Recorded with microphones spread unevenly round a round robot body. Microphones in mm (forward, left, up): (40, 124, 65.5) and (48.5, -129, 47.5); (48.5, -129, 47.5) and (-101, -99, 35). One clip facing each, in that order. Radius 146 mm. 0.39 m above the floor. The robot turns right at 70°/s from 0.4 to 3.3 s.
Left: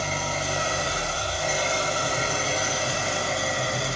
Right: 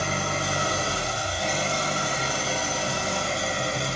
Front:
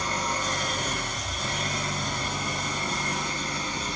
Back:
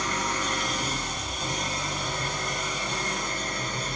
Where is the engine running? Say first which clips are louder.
Right 1 dB, even; 70° right, 2 m; by 4.0 s 130° left, 2 m.